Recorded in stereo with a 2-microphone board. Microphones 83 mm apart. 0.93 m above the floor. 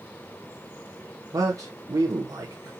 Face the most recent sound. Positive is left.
turn(degrees=-40)  # may be behind; listen again after turning